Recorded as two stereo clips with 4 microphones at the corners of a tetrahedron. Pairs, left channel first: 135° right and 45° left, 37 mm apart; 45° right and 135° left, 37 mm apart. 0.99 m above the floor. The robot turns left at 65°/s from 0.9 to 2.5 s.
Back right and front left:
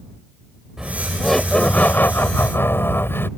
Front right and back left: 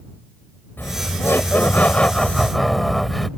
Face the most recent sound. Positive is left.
turn(degrees=-135)